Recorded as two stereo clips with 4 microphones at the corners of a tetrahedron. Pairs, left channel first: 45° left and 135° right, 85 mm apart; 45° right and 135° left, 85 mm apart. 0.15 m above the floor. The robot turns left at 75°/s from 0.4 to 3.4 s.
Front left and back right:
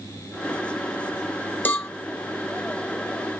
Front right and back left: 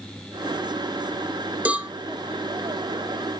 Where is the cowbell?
90° left, 0.7 m; by 1.9 s 70° left, 0.7 m.